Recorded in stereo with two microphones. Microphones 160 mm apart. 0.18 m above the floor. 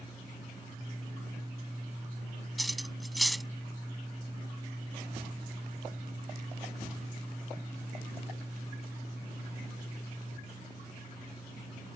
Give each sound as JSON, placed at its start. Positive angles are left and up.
{"t": 2.6, "sound": "cutlery clinking", "side_deg": 0}